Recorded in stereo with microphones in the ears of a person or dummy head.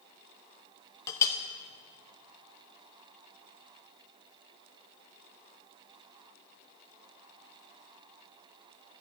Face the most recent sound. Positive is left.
turn(degrees=20)  # may be behind; listen again after turning